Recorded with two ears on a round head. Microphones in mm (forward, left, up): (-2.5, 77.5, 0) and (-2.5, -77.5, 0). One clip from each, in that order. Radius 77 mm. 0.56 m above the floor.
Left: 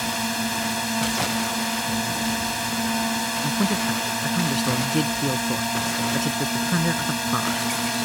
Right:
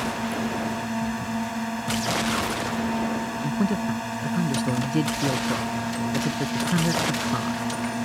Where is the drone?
70° left (ahead or behind).